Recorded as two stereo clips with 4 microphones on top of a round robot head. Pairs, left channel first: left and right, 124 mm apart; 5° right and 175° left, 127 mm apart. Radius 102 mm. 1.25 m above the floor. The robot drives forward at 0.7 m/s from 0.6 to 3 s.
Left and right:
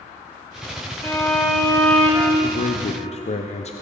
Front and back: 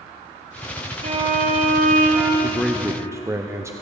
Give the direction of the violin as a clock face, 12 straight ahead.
7 o'clock.